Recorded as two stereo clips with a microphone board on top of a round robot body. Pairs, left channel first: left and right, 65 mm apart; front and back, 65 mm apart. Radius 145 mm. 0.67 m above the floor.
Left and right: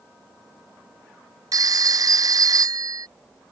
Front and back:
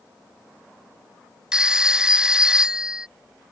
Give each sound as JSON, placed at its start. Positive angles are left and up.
{"t": 1.5, "sound": "a phone ringing", "azimuth_deg": -100}